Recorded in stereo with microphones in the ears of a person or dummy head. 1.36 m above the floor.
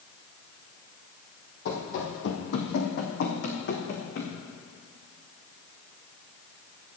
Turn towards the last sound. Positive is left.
turn(degrees=60)  # may be behind; listen again after turning